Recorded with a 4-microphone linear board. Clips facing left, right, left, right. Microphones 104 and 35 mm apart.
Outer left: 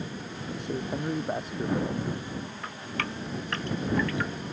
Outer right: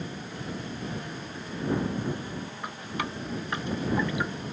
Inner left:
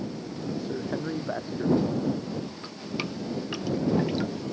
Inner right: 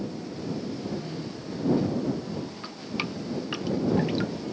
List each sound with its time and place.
0.6 s a man speaking: 75° left (ahead or behind)
2.6 s dripping: 15° right (ahead or behind)